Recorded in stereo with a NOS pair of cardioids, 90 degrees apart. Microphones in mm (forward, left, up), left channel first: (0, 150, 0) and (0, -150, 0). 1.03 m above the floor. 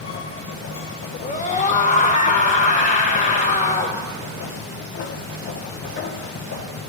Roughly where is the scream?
Ahead left.